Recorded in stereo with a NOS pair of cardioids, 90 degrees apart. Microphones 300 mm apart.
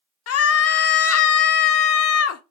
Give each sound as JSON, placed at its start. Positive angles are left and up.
{"t": 0.3, "sound": "a scream", "azimuth_deg": 55, "distance_m": 0.6}